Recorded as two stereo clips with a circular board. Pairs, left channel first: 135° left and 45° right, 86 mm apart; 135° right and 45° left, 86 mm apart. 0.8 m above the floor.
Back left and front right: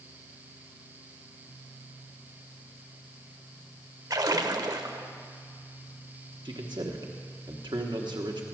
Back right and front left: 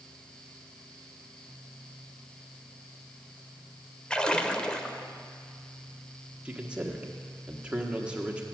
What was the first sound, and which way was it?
A splash, 60° right.